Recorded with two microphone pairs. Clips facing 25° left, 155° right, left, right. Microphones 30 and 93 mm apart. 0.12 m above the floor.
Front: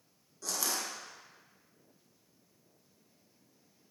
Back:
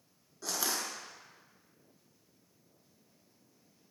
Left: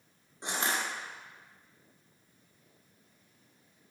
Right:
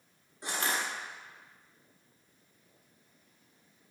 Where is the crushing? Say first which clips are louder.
Back 1 dB, even; 140° left, 0.6 m.